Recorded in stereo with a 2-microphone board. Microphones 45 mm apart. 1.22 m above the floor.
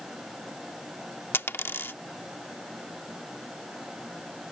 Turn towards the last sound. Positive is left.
turn(degrees=60)  # may be behind; listen again after turning